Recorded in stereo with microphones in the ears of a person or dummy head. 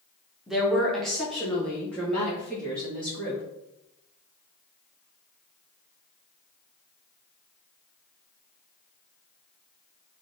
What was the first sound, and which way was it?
A woman speaking, 5° right (ahead or behind).